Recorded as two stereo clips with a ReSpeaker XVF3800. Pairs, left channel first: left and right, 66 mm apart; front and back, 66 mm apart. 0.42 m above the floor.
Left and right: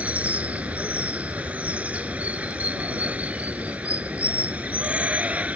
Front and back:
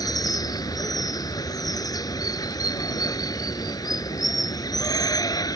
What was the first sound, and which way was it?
Running water, 20° right.